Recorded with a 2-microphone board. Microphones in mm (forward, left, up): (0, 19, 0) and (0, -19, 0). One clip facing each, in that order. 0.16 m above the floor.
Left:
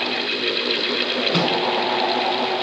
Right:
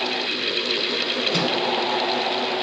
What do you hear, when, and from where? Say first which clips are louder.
1.3 s a microwave: left 3 dB; 25° left (ahead or behind), 0.9 m